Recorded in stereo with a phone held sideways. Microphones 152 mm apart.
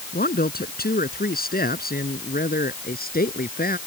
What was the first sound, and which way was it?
A man speaking, 85° left.